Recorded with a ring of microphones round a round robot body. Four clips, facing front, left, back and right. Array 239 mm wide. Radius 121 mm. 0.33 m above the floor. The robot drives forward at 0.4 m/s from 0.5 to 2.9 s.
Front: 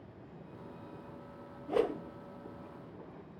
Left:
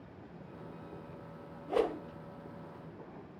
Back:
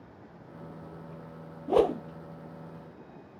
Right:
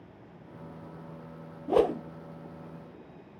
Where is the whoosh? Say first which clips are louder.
Right 7 dB, back 7 dB; 135° right, 0.6 m; by 2.0 s 145° right, 0.7 m.